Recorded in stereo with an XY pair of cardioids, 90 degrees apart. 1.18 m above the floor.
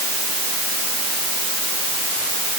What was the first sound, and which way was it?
Only background noise.